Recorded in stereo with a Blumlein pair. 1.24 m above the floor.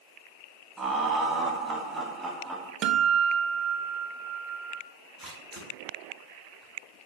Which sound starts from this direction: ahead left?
A camera shutter, at 5.2 s.